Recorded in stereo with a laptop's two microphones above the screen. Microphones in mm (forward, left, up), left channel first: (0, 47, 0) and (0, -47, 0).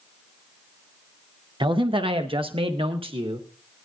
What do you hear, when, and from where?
1.6 s a man speaking: 60° right (ahead or behind), 0.6 m; by 3.5 s 75° right (ahead or behind), 1.4 m